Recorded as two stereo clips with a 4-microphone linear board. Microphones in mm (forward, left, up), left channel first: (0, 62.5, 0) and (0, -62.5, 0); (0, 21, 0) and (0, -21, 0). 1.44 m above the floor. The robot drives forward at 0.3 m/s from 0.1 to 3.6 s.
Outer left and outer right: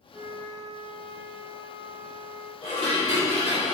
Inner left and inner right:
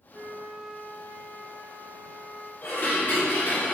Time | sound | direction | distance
0.1 | a flute | 20° right (ahead or behind) | 1.7 m
2.6 | dishes clattering | 65° left (ahead or behind) | 2.0 m